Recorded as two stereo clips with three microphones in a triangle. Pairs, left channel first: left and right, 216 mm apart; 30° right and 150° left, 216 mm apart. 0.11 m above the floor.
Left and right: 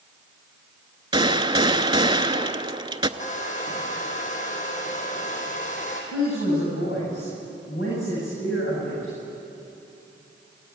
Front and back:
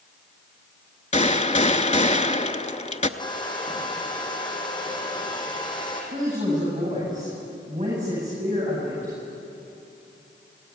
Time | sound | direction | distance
1.1 | a gunshot | 40° right | 0.8 m
3.2 | a hair dryer | 40° left | 4 m
6.1 | a woman speaking | 100° left | 9.5 m